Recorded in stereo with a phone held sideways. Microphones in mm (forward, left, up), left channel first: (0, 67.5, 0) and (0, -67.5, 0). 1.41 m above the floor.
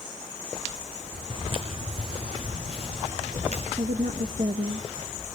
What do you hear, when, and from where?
1.3 s footsteps: 35° right (ahead or behind), 4 m; by 3.7 s 55° right (ahead or behind), 7 m
3.8 s a woman speaking: 70° right (ahead or behind), 1.4 m